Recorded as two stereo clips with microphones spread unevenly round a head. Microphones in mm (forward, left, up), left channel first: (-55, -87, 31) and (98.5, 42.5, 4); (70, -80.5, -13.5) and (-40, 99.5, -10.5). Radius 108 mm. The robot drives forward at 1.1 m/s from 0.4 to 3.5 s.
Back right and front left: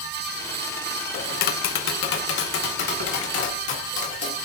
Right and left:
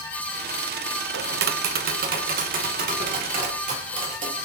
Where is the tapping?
165° left, 0.5 m; by 4.3 s 175° left, 3 m.